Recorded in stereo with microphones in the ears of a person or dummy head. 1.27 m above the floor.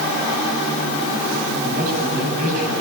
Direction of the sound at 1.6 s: 50° right (ahead or behind).